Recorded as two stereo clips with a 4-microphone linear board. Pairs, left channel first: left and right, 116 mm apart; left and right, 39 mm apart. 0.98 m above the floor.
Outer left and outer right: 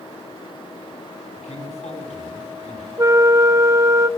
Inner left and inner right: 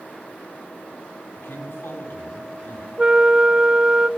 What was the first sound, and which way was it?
A man speaking, 85° left.